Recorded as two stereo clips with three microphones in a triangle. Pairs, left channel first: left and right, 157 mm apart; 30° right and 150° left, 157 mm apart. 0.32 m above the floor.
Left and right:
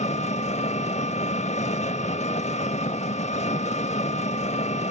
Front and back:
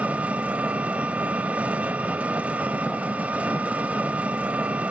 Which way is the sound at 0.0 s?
70° left.